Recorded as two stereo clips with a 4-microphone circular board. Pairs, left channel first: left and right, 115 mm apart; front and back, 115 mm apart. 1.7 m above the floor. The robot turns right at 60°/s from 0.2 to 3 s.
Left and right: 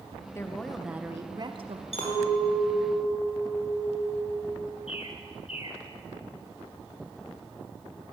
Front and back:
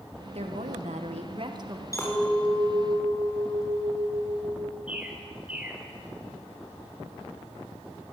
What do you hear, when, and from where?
0.3 s a woman speaking: 155° left, 1.8 m; by 1.8 s 115° right, 1.8 m
1.9 s a clink: 65° left, 5 m; by 4.8 s 125° left, 5 m
4.9 s a bird: 105° left, 3 m